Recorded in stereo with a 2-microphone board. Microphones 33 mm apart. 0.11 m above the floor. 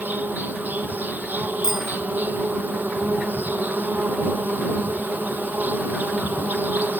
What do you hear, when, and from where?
0.0 s an insect: 65° right (ahead or behind)
1.6 s a bicycle bell: 15° right (ahead or behind)